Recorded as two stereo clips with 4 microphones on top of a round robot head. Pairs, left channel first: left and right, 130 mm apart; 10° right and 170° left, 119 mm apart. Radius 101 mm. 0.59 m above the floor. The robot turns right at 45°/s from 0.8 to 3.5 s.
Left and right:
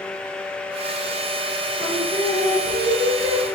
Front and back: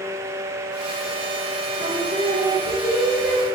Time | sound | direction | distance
1.8 | singing | 175° right | 5 m